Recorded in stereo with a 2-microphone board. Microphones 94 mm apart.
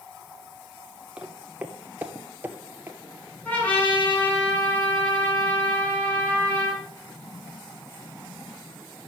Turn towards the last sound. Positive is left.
turn(degrees=15)  # may be behind; listen again after turning